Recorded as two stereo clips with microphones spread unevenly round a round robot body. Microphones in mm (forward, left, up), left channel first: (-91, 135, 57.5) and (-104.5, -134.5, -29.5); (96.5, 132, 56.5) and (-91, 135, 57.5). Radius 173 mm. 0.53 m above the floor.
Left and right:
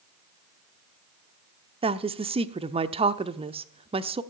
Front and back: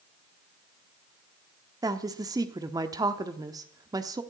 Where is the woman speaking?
120° right, 0.8 m.